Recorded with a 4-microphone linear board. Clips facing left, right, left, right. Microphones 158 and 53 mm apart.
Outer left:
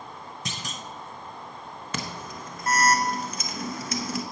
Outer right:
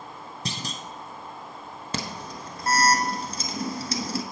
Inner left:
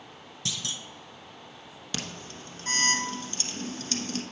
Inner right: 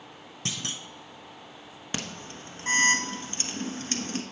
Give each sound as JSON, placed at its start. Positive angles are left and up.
{"t": 0.5, "sound": "a clunk", "side_deg": -35, "distance_m": 0.6}
{"t": 1.9, "sound": "an alarm", "side_deg": -30, "distance_m": 0.9}